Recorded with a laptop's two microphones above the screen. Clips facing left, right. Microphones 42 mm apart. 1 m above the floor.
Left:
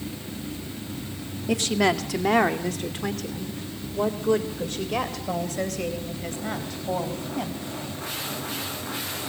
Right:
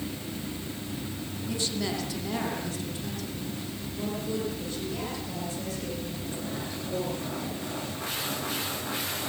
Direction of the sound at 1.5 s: 85° left.